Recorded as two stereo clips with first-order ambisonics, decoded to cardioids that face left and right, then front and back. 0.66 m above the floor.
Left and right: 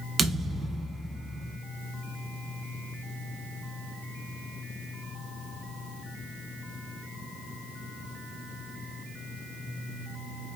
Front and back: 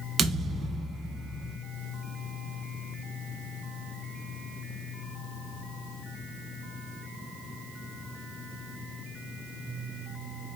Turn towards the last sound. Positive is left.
turn(degrees=-140)